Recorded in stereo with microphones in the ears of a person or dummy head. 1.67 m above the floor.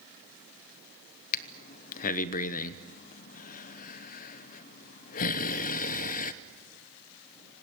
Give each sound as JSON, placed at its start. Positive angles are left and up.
{"t": 1.3, "sound": "breathing", "side_deg": 45, "distance_m": 0.9}